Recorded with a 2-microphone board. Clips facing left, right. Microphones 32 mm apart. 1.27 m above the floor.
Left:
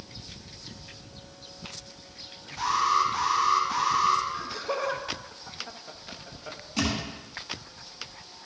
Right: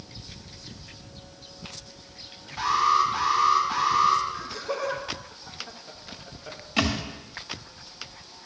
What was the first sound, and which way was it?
An alarm, 25° right (ahead or behind).